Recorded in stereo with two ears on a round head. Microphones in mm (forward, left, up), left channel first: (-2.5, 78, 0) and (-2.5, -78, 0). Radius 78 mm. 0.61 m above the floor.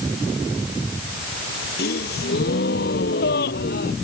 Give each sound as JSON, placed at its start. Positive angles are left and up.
{"t": 1.8, "sound": "a gasp", "side_deg": 65}